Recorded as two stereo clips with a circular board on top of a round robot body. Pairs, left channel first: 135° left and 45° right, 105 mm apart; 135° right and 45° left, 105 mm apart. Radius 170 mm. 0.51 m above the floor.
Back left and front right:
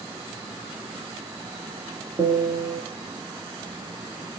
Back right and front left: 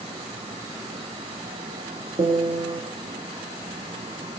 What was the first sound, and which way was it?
A piano, 5° left.